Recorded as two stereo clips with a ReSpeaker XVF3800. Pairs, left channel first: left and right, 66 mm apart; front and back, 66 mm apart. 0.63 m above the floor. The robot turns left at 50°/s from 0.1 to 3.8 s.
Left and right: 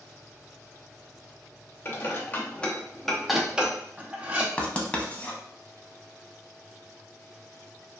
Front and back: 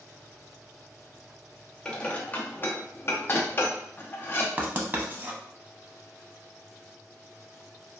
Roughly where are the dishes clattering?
Ahead left.